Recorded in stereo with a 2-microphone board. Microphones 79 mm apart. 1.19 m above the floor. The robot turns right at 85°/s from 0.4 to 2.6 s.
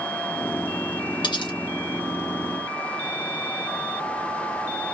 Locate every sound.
1.2 s cutlery clinking: 65° left (ahead or behind), 0.7 m; by 1.6 s 70° left (ahead or behind), 0.7 m